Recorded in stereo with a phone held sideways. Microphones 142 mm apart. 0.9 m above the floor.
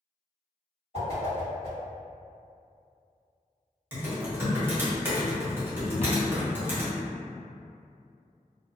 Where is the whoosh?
45° left (ahead or behind), 1.7 m.